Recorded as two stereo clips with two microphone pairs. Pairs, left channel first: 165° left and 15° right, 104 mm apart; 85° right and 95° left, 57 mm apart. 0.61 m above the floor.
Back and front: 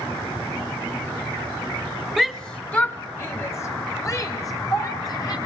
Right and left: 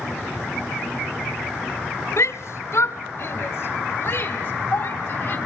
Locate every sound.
2.2 s a shout: 105° right, 1.5 m; by 5.4 s 145° right, 4.5 m